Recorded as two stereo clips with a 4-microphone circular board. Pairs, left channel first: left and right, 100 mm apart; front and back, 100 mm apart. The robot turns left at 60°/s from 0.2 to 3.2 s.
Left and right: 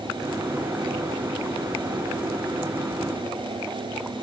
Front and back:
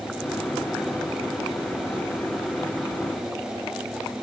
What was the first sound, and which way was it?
Only background noise.